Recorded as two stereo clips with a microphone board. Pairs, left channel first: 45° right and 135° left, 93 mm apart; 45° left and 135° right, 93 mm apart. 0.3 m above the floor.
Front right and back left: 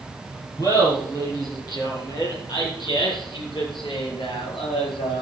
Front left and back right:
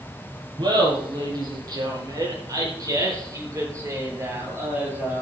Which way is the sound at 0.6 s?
100° right.